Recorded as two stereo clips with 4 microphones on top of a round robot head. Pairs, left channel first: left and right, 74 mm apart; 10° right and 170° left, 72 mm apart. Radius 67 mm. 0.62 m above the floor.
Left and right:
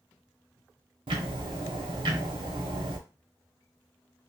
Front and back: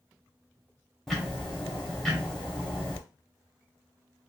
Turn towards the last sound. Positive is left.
turn(degrees=-95)